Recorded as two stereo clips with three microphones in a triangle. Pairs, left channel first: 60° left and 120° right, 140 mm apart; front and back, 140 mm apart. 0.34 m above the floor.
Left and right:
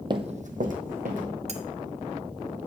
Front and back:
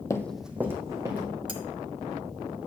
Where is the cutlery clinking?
135° right, 0.9 m.